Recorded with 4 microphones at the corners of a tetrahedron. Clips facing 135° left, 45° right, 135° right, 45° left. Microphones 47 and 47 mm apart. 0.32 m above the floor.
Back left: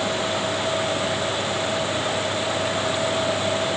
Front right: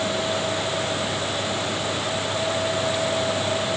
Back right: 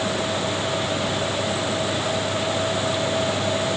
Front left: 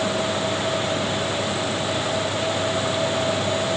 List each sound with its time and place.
Only background noise.